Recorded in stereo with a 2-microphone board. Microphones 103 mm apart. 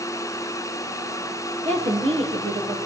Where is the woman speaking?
85° right, 8 m.